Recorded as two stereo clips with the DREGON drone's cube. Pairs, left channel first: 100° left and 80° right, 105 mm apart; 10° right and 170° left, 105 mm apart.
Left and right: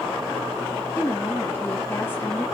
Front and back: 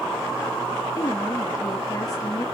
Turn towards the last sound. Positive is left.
turn(degrees=35)